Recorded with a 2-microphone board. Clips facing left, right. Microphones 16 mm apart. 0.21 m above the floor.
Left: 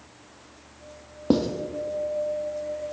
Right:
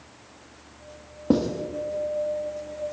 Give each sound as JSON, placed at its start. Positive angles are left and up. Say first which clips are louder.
{"t": 1.3, "sound": "writing", "louder": "even", "side_deg": 25, "distance_m": 1.1}